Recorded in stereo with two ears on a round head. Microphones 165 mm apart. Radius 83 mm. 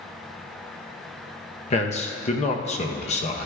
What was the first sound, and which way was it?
A man speaking, 35° left (ahead or behind).